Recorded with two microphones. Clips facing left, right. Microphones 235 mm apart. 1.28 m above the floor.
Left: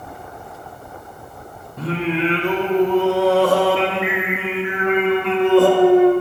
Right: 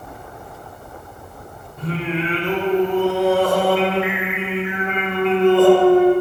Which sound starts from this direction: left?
Singing, at 1.8 s.